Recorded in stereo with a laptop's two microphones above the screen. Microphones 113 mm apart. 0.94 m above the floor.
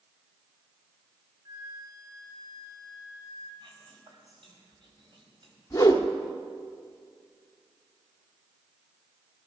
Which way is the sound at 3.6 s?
50° right (ahead or behind).